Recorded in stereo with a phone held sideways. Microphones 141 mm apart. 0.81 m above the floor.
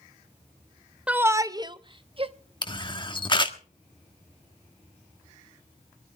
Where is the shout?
10° right (ahead or behind), 0.6 m; by 2.3 s 40° right (ahead or behind), 1.3 m.